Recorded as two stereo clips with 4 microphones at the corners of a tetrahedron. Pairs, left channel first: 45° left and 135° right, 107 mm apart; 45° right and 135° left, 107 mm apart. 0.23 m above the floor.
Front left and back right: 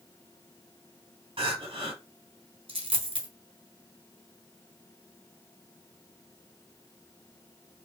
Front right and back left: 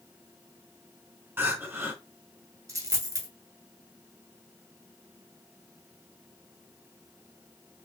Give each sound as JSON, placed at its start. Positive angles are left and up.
{"t": 1.4, "sound": "crying", "azimuth_deg": -160, "distance_m": 1.2}
{"t": 2.7, "sound": "a dropped coin", "azimuth_deg": -170, "distance_m": 1.1}